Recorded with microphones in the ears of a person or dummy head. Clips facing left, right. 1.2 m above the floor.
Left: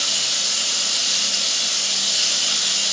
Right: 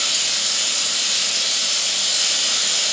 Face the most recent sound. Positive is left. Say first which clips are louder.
# even
turn(degrees=60)  # may be behind; listen again after turning